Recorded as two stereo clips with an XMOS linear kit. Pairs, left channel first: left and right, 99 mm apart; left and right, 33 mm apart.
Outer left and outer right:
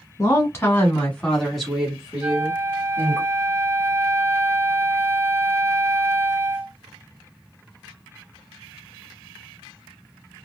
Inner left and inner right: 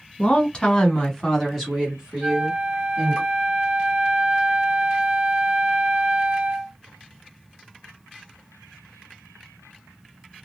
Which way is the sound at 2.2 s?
20° right (ahead or behind).